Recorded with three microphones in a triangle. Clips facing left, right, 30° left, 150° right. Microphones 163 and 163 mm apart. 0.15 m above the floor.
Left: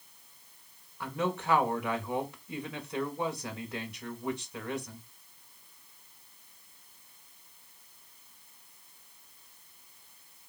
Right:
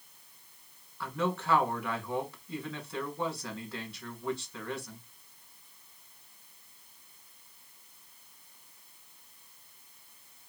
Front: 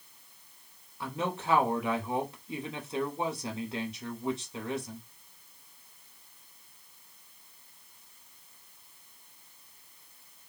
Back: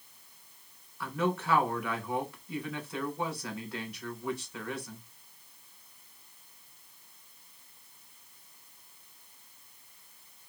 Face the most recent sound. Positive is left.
turn(degrees=50)